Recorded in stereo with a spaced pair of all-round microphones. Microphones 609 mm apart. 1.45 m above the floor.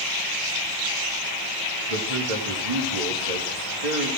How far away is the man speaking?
About 3 m.